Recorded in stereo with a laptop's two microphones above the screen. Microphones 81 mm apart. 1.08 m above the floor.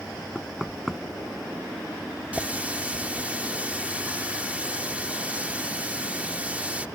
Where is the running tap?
20° right (ahead or behind).